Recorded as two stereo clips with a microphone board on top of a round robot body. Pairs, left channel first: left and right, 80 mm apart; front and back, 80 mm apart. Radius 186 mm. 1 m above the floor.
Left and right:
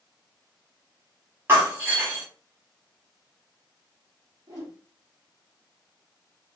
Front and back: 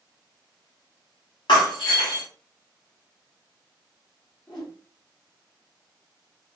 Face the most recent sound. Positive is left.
turn(degrees=-65)